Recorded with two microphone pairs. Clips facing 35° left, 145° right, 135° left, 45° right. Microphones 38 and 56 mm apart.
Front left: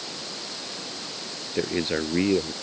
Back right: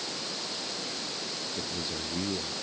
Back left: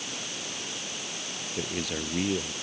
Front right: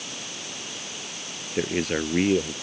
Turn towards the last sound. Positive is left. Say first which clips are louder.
# front left 14 dB, front right 8 dB
turn(degrees=5)